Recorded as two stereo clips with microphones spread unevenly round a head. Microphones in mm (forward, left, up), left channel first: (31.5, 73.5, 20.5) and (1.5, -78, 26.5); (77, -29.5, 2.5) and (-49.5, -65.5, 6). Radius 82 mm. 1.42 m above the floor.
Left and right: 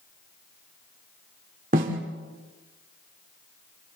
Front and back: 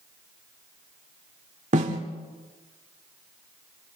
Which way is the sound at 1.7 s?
140° right.